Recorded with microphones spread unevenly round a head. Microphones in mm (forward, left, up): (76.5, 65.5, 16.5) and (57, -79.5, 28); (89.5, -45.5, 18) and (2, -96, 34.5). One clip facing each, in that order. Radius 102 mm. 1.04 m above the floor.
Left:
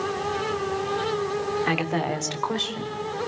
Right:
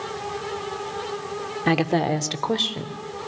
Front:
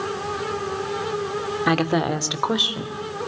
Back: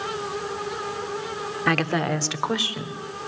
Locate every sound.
1.7 s a woman speaking: 45° right, 2.5 m; by 3.0 s 40° right, 4 m